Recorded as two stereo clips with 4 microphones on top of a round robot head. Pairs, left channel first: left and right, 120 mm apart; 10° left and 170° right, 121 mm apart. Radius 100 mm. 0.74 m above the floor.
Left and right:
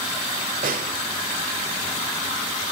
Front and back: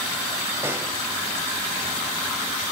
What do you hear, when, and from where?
0.6 s a snare drum: 95° right, 1.0 m